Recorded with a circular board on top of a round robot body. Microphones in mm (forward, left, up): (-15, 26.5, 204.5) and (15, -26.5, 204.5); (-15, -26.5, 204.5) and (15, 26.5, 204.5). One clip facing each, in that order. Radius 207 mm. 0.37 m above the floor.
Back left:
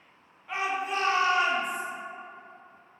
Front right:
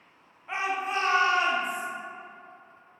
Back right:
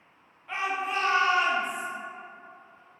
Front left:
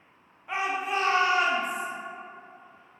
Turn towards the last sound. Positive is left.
turn(degrees=-25)